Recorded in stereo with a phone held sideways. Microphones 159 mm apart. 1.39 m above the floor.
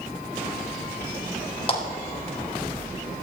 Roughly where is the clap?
Left.